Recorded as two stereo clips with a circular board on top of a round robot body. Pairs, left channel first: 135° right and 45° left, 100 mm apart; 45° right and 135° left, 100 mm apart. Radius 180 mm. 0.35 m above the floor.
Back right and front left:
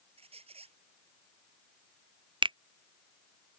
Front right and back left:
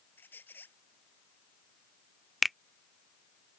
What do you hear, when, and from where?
0.2 s a squeak: 25° left
2.4 s a finger snap: 45° left